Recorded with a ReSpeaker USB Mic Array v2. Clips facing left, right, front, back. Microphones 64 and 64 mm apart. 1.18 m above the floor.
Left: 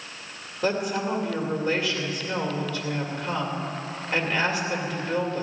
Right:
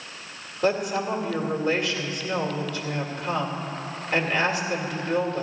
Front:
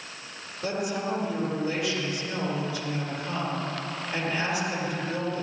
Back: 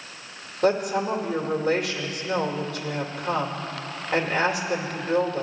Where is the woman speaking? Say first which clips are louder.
Right 2 dB, back 7 dB; straight behind, 2 m.